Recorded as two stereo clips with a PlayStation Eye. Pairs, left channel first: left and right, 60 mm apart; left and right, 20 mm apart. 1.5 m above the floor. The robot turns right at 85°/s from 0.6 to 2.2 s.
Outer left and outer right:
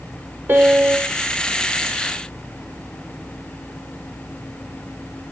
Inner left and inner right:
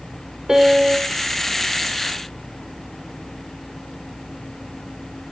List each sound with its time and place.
0.5 s a piano: 120° right, 0.8 m; by 1.1 s 75° right, 0.8 m